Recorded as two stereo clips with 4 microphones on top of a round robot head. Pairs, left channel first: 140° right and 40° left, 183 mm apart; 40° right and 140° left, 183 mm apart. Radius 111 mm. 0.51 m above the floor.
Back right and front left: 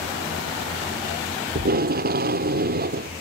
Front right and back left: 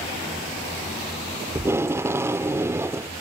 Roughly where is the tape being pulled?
Ahead left.